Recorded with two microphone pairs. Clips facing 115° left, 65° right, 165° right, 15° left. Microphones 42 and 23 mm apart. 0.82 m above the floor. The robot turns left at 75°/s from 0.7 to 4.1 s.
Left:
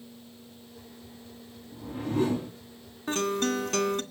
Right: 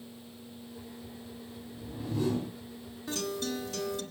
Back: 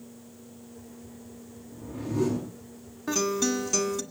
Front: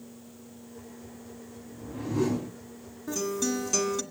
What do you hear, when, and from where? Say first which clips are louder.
1.7 s a whoosh: left 6 dB, even; 110° left, 8 m; by 2.5 s 50° left, 8 m
3.1 s a guitar: left 7 dB, back 3 dB; 160° left, 1.9 m; by 4.0 s 90° left, 1.9 m